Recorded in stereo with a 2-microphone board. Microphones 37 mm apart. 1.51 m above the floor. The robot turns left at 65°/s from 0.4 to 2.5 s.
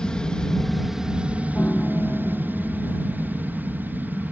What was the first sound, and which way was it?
An aircraft, 25° left.